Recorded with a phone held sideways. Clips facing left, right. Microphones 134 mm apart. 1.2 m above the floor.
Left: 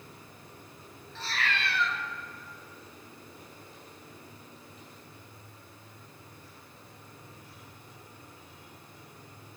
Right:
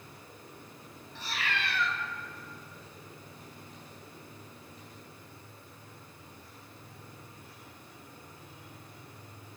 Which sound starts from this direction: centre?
A cat meowing, at 1.1 s.